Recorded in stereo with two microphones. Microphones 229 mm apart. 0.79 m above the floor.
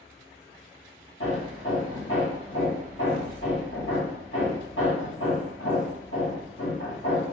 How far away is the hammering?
About 1.5 m.